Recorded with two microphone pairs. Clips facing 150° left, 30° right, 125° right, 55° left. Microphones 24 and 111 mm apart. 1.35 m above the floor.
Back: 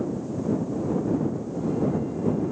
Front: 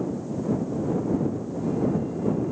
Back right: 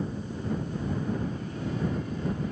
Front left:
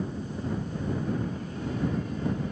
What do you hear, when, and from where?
Only background noise.